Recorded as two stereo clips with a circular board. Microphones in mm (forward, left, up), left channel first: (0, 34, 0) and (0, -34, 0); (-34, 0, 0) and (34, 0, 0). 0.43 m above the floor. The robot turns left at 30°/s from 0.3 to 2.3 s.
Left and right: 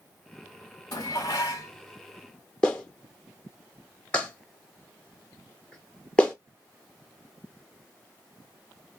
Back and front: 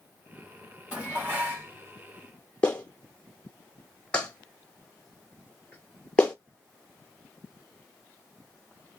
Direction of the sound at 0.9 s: 75° left.